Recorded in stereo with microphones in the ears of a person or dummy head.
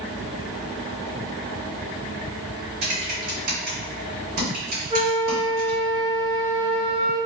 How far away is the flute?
About 1.9 m.